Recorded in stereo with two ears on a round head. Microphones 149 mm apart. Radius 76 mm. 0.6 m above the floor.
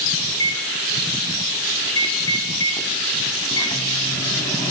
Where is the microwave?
25° left (ahead or behind), 4.5 m.